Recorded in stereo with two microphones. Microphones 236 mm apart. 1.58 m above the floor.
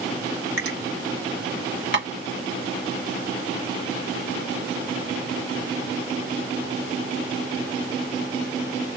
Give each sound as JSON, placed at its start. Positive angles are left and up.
{"t": 0.6, "sound": "a finger snap", "side_deg": -65, "distance_m": 1.7}
{"t": 1.9, "sound": "tapping", "side_deg": -50, "distance_m": 1.3}